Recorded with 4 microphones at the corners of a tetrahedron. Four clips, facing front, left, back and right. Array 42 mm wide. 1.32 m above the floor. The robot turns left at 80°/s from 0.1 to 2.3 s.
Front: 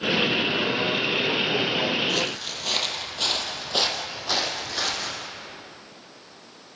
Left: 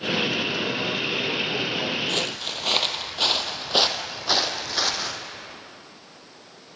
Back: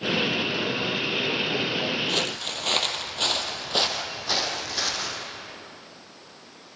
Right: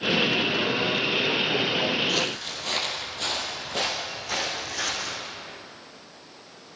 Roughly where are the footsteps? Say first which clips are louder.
Even, even; behind left.